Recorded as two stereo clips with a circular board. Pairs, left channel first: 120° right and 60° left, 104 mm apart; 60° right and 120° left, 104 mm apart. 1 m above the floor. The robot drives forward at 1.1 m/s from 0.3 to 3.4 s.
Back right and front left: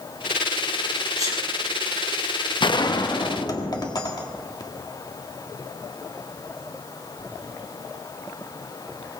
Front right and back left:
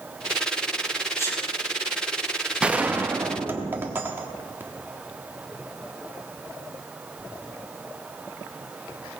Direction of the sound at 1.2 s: 5° left.